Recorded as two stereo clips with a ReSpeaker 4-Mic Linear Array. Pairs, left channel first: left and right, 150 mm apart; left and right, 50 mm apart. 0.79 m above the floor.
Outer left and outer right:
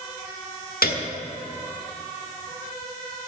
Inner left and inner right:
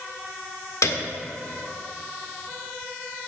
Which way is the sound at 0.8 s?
80° left.